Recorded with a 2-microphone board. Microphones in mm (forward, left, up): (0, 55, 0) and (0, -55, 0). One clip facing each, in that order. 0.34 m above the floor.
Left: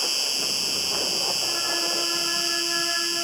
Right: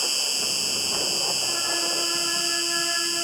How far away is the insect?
About 1.4 m.